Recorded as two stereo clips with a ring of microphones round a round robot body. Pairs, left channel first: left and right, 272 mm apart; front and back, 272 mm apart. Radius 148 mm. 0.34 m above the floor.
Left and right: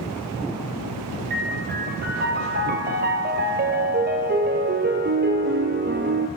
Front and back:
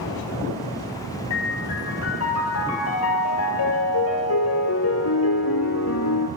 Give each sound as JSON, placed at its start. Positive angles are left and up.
{"t": 1.3, "sound": "a piano", "azimuth_deg": -35, "distance_m": 1.8}